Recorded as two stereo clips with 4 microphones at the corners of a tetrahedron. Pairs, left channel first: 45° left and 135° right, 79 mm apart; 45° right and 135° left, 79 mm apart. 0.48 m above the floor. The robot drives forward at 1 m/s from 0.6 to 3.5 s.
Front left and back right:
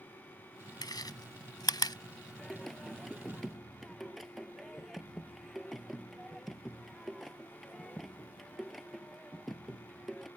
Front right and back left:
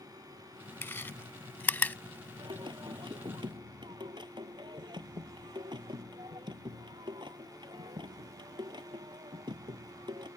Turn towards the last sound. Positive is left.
turn(degrees=135)